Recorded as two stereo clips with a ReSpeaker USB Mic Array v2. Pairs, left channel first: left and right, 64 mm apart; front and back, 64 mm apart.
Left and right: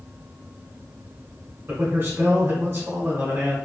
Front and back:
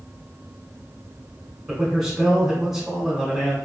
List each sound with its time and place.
1.7 s a man speaking: 105° right, 1.2 m